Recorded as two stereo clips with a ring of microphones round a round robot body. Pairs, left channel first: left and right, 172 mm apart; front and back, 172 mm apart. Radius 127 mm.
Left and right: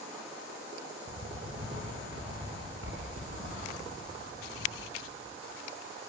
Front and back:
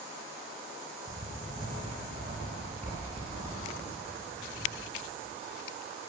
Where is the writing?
115° right, 5.5 m.